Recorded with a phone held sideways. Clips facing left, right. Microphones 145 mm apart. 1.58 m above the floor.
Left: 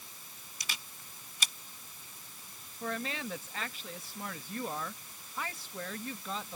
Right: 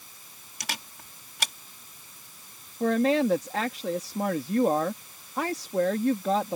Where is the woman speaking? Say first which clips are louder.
Right 15 dB; 65° right (ahead or behind).